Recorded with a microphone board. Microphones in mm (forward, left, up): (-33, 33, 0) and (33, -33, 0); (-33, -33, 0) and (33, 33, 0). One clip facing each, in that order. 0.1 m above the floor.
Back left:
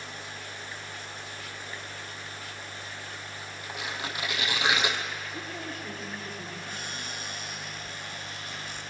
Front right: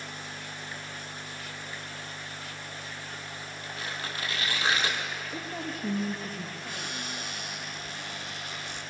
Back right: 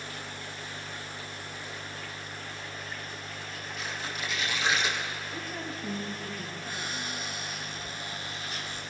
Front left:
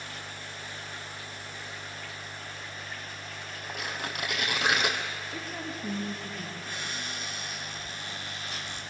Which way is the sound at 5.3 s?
30° right.